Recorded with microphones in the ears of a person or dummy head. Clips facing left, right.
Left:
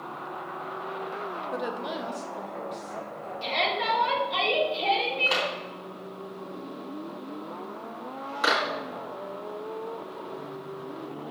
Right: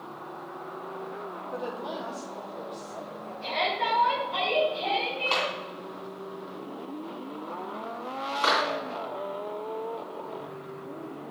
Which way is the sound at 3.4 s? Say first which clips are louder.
Left 1 dB; 45° left (ahead or behind).